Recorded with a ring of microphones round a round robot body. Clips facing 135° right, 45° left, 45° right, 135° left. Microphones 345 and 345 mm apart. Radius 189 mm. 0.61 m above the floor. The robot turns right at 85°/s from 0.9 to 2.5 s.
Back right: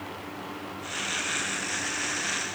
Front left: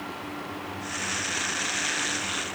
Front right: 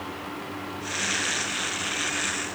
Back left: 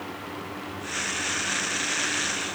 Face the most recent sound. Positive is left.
No sound to turn to.